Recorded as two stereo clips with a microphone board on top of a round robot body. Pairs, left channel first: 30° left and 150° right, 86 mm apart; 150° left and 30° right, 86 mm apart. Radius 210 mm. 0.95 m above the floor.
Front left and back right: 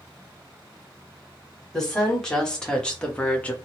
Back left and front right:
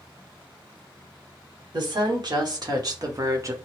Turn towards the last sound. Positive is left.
turn(degrees=-30)